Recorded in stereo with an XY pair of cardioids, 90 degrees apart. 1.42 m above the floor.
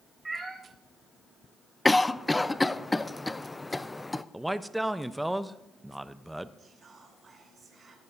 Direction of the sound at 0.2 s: 30° right.